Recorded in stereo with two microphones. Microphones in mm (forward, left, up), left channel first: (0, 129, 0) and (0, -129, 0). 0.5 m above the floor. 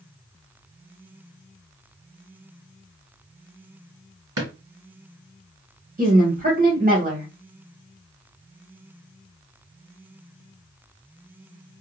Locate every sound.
4.4 s a drawer: 80° right, 1.1 m
6.0 s a woman speaking: 35° right (ahead or behind), 1.3 m